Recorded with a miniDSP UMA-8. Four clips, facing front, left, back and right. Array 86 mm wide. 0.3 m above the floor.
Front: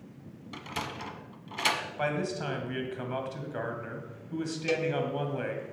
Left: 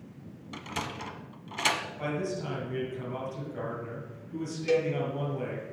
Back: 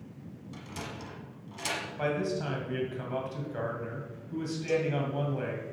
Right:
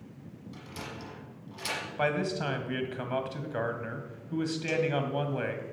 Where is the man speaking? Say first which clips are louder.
Right 3 dB, back 3 dB; 70° right, 1.8 m.